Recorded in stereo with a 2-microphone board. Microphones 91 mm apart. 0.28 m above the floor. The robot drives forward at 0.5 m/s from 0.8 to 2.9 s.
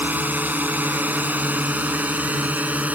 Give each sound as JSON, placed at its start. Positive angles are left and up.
{"t": 0.0, "sound": "a drone", "side_deg": -20}